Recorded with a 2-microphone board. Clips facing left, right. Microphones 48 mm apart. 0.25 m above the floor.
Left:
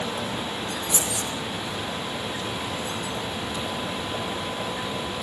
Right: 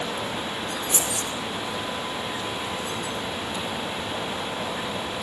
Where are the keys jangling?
50° right (ahead or behind), 5.5 m.